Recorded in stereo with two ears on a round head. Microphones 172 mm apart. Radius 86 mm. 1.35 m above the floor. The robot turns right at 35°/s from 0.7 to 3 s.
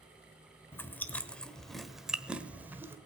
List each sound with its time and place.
0.7 s chewing: 10° left (ahead or behind), 1.1 m; by 3.0 s 10° right (ahead or behind), 1.1 m